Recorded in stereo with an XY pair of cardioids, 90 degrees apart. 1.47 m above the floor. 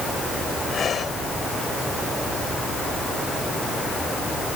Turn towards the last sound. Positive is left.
turn(degrees=55)